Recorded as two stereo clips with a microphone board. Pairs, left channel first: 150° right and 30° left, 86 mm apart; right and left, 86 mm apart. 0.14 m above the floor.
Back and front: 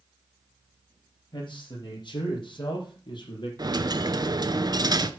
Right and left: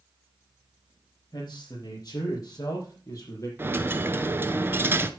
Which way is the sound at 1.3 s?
130° right.